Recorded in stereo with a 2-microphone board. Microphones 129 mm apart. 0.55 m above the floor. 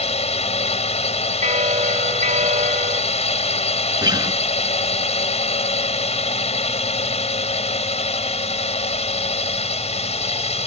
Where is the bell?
85° right.